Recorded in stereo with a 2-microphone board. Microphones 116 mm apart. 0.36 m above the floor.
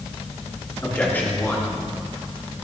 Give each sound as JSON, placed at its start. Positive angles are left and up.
{"t": 0.8, "sound": "a man speaking", "side_deg": 15, "distance_m": 4.0}